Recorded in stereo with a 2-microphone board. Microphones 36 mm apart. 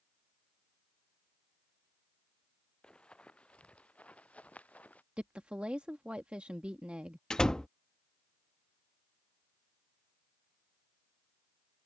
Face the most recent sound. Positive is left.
turn(degrees=20)  # may be behind; listen again after turning